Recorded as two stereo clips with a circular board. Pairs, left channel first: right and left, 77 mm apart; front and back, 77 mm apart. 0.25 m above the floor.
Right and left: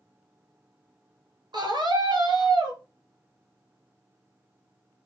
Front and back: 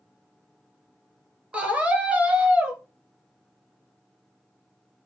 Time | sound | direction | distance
1.5 | a scream | 105° left | 3.5 m